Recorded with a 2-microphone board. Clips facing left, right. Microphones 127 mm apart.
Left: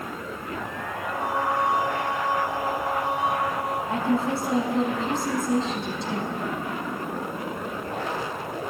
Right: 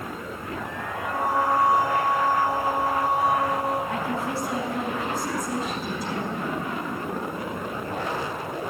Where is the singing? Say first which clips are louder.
Right 3 dB; 40° right (ahead or behind), 3.5 m.